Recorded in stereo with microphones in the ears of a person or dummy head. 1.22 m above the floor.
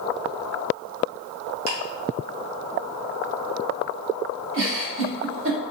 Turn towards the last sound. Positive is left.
turn(degrees=-65)  # may be behind; listen again after turning